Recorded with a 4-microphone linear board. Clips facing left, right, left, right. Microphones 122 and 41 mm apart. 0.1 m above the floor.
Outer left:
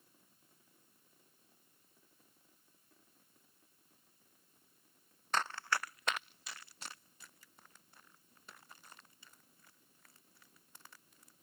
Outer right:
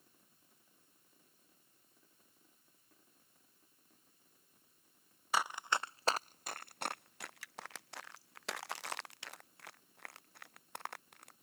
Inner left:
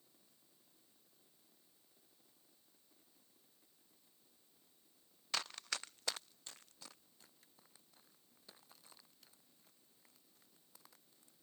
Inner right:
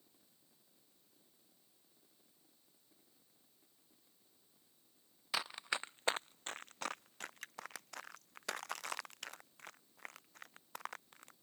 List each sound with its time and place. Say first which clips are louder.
5.3 s running footsteps: outer right 1 dB, inner right 3 dB; 10° right (ahead or behind); by 11.3 s 70° right (ahead or behind)